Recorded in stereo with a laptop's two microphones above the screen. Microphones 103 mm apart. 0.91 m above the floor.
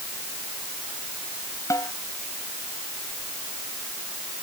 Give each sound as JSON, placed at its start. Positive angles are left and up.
{"t": 1.7, "sound": "a snare drum", "side_deg": 35}